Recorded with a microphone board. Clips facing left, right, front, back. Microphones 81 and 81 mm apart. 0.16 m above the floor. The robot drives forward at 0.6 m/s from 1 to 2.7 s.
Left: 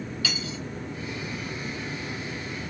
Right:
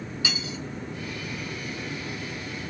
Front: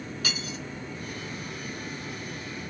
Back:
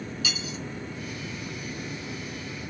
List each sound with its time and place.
0.2 s cutlery clinking: 25° right, 1.2 m